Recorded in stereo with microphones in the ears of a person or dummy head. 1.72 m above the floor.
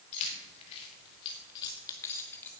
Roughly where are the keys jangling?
Left.